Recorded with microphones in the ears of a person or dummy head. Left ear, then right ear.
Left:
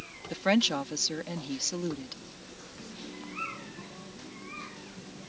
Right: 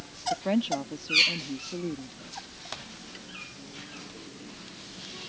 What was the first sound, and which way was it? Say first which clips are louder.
A woman speaking: left 2 dB; 60° left (ahead or behind).